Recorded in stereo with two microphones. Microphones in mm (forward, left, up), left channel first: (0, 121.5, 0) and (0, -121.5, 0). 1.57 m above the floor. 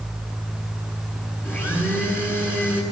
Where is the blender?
10° left (ahead or behind), 9.5 m.